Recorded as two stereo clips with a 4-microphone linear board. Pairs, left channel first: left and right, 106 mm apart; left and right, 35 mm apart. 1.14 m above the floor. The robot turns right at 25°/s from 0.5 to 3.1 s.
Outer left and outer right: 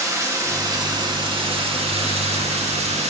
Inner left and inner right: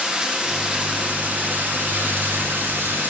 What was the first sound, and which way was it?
Running water, 150° right.